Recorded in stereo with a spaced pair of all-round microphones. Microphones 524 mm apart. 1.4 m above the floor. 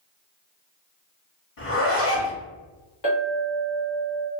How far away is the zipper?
About 1.2 m.